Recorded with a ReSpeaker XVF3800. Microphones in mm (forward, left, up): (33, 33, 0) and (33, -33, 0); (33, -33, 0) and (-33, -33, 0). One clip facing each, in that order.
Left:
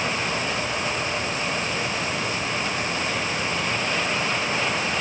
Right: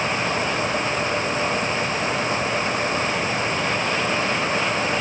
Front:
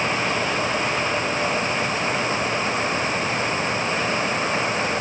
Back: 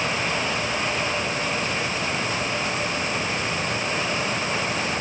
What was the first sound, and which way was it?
Only background noise.